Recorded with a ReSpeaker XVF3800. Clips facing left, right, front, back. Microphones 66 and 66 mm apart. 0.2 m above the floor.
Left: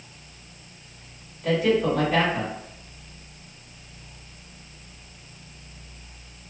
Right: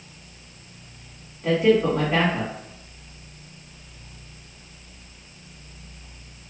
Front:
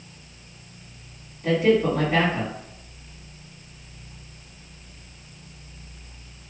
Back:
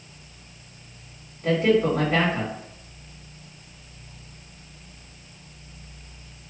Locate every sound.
1.4 s a man speaking: 145° right, 2.0 m